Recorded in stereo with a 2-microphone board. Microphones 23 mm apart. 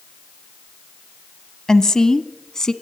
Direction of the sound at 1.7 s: 25° left (ahead or behind).